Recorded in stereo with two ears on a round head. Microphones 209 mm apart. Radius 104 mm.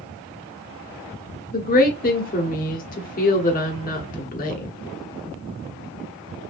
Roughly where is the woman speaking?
Left.